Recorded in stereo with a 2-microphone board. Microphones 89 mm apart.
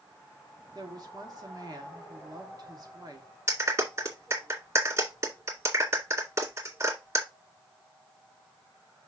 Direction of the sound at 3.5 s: 35° right (ahead or behind).